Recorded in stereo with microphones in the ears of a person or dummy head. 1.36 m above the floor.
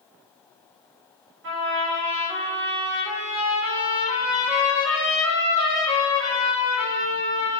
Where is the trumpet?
60° right (ahead or behind), 1.3 m.